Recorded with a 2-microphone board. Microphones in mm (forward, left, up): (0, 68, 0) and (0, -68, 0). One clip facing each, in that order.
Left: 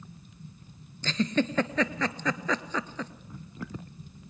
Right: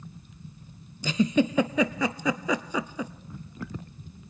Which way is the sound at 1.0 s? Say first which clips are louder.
Right 4 dB; 10° right (ahead or behind).